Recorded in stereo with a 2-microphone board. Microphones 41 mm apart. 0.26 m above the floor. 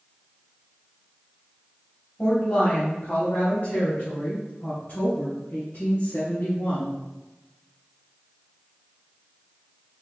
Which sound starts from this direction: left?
A woman speaking, at 2.2 s.